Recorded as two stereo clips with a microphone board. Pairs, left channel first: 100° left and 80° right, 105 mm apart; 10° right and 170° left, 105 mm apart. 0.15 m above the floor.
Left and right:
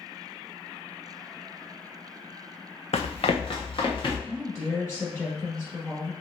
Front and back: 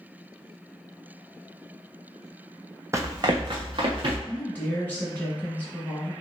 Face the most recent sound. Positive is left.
turn(degrees=50)